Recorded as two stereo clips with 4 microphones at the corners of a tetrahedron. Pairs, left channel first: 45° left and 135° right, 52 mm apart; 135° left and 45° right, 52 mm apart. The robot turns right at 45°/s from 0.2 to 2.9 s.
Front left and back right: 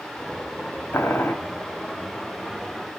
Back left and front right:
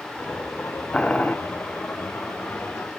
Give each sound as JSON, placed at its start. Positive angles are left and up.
{"t": 0.9, "sound": "boiling", "azimuth_deg": 70, "distance_m": 1.4}